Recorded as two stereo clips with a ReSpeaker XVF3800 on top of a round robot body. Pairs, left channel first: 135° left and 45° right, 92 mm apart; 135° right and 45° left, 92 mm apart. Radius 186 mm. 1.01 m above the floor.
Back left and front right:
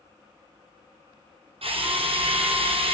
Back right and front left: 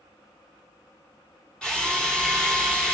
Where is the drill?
55° right, 3 m.